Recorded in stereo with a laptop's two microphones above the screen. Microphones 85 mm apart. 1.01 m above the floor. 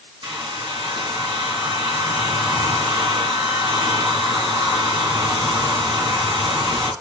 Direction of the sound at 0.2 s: 80° right.